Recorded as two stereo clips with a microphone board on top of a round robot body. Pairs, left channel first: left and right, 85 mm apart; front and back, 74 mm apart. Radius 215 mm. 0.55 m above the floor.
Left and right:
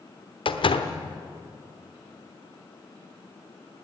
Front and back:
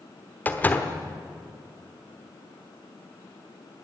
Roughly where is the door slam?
Left.